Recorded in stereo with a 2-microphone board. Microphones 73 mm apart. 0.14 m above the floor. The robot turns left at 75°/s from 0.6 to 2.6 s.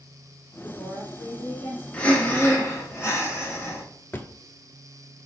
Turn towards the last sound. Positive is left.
turn(degrees=30)  # may be behind; listen again after turning